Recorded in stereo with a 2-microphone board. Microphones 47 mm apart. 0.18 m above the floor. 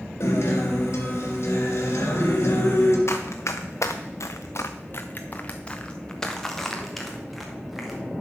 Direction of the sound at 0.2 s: 65° left (ahead or behind).